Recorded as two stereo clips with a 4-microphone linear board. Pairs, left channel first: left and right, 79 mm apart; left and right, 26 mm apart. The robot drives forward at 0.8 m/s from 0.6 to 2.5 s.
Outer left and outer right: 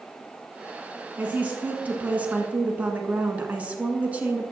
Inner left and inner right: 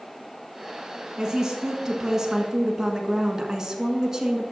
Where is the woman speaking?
20° right (ahead or behind), 1.3 m.